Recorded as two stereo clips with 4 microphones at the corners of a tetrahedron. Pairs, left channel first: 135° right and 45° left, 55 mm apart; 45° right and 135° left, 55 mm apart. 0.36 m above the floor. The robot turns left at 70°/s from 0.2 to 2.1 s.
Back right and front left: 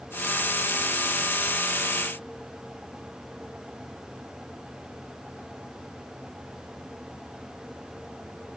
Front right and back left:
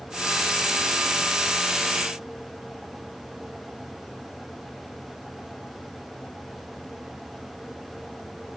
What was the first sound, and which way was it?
Only background noise.